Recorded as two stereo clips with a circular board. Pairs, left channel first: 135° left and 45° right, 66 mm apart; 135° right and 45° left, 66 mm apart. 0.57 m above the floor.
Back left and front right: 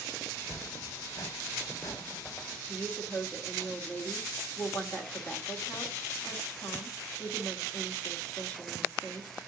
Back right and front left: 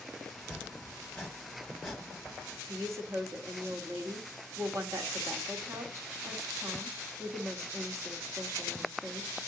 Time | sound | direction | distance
0.3 | chopping | 130° left | 1.5 m
2.7 | a woman speaking | 75° left | 1.7 m